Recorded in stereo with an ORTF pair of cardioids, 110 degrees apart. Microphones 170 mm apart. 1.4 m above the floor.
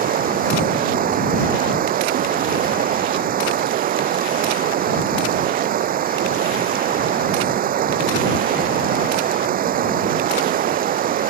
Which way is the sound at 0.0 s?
55° right.